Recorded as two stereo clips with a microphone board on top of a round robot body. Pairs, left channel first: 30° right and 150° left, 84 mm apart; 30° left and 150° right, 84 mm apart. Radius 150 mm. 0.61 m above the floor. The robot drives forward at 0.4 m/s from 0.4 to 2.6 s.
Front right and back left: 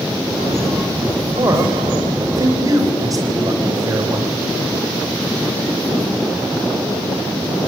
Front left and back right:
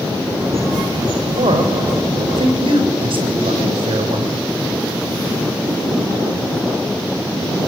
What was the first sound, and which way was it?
A man speaking, 160° right.